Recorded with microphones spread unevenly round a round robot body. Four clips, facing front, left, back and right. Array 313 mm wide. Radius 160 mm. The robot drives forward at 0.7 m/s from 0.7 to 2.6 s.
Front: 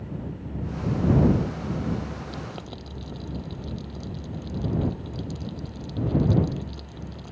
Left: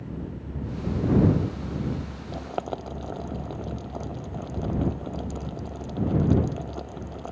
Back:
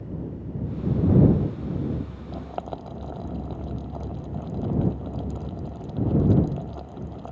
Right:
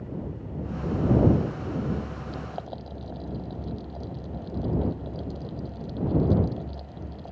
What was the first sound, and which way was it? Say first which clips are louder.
Boiling: left 5 dB, back 4 dB; 110° left.